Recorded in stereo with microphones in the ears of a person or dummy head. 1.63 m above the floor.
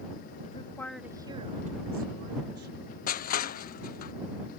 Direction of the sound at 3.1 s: 50° left (ahead or behind).